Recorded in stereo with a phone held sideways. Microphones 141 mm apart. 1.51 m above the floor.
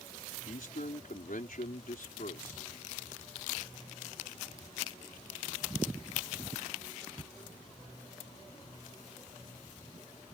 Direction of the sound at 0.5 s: 75° left (ahead or behind).